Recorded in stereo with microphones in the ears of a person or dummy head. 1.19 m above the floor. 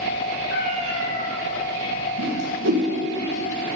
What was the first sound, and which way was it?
A cat meowing, 40° right (ahead or behind).